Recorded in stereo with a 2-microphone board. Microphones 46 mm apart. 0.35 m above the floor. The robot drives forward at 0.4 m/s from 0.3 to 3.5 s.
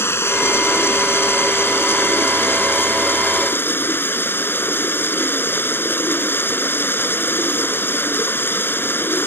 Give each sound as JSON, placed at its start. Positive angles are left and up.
{"t": 0.0, "sound": "running water", "side_deg": 65}